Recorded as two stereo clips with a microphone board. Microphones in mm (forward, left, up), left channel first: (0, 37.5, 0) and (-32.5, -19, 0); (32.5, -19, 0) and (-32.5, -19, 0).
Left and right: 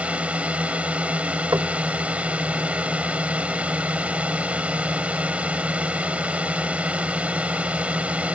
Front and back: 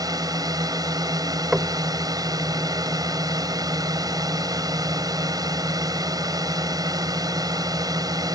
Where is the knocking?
105° right.